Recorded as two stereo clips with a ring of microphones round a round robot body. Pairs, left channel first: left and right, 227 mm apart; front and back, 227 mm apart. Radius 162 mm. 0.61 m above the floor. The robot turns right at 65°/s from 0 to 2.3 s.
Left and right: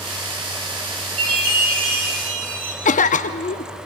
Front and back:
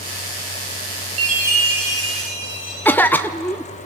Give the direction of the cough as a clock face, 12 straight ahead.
9 o'clock.